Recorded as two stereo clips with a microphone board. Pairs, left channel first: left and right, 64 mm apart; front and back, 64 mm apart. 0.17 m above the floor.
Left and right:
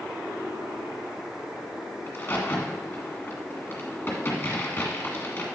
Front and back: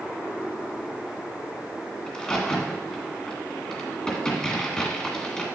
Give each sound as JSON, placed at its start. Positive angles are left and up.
{"t": 2.1, "sound": "a crack", "azimuth_deg": 70, "distance_m": 1.9}